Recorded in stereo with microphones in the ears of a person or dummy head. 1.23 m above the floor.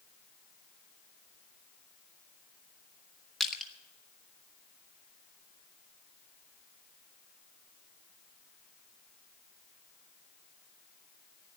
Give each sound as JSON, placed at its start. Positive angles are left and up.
{"t": 3.4, "sound": "crushing", "side_deg": 0, "distance_m": 1.7}